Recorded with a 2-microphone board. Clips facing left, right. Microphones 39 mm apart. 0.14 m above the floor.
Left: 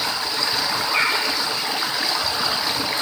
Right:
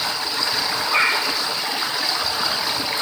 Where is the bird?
75° right (ahead or behind), 7.5 m.